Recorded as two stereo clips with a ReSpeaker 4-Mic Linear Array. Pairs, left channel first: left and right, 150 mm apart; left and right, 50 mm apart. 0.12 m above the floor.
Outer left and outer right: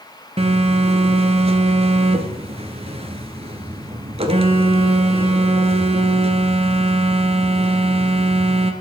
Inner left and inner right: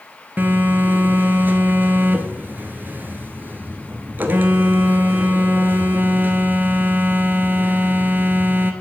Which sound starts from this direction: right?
A phone buzzing, at 0.4 s.